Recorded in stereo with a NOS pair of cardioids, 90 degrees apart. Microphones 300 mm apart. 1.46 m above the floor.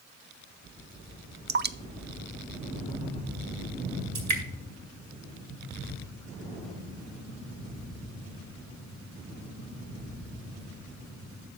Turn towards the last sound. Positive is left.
turn(degrees=-65)